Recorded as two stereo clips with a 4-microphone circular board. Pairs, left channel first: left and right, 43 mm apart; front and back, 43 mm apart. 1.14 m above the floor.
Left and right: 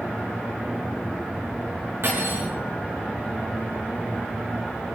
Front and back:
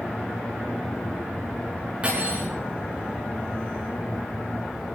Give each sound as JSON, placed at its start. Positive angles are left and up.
{"t": 2.0, "sound": "cutlery clinking", "azimuth_deg": -120, "distance_m": 7.5}